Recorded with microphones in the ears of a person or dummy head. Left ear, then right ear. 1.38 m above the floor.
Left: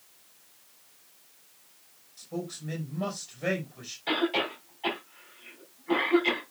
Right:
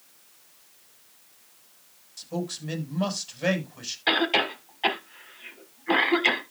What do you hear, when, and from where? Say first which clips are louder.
2.2 s a man speaking: right 4 dB; 30° right (ahead or behind), 5.5 m
4.1 s a cough: right 5 dB; 55° right (ahead or behind), 4.5 m